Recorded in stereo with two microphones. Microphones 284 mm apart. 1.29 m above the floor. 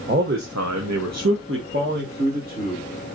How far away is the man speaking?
About 0.9 m.